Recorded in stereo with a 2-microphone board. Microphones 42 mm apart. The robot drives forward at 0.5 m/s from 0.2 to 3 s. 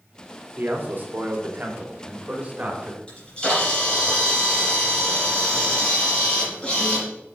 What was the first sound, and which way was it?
A man speaking, 50° right (ahead or behind).